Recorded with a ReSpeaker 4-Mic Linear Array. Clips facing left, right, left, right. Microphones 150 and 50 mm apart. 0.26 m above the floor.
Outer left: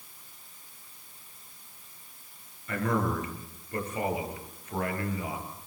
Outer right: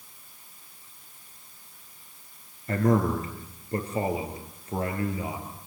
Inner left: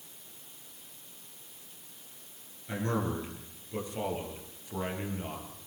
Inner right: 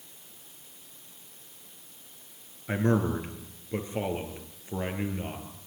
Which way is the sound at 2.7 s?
40° right (ahead or behind).